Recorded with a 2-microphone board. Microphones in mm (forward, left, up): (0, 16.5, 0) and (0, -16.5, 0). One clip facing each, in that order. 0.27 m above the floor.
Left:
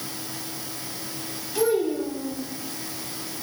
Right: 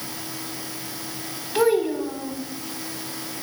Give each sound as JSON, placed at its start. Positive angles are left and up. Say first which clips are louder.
{"t": 1.6, "sound": "a child speaking", "louder": "right 3 dB", "side_deg": -55, "distance_m": 1.0}